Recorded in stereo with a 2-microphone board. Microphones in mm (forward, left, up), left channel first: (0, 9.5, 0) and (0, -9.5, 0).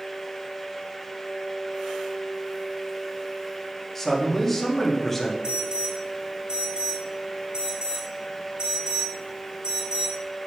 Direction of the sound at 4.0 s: 10° left (ahead or behind).